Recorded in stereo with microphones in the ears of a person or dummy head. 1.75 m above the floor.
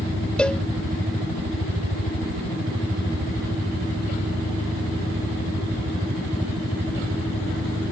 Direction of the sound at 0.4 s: 5° left (ahead or behind).